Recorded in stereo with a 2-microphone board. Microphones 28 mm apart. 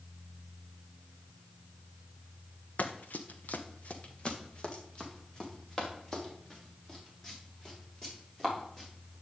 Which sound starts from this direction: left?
Running footsteps, at 2.8 s.